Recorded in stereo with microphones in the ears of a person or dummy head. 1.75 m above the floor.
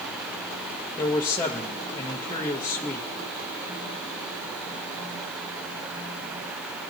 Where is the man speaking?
20° left (ahead or behind), 1.0 m.